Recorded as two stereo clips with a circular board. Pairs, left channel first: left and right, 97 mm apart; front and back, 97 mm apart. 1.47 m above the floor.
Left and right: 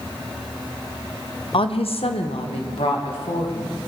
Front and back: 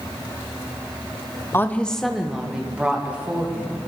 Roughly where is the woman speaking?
Ahead left.